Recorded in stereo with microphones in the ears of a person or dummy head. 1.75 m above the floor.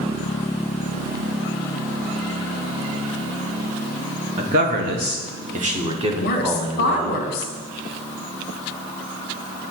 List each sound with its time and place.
4.4 s a man speaking: 45° right (ahead or behind), 0.8 m; by 7.2 s 20° right (ahead or behind), 1.5 m
6.2 s a woman speaking: 60° left (ahead or behind), 1.1 m